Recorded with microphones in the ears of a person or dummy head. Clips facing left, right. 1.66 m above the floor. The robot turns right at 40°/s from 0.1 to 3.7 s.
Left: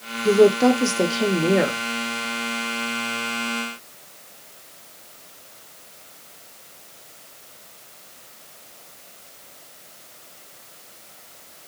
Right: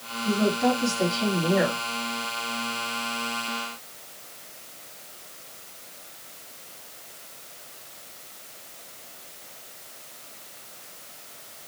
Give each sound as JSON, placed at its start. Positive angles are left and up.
{"t": 0.2, "sound": "a woman speaking", "azimuth_deg": 75, "distance_m": 0.9}